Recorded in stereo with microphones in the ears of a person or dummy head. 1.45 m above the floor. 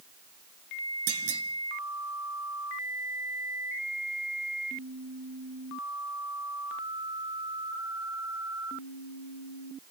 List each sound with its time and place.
1.1 s a clunk: 70° right (ahead or behind), 1.9 m